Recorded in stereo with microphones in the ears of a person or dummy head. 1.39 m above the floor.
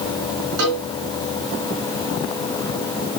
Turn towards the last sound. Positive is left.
turn(degrees=-60)  # may be behind; listen again after turning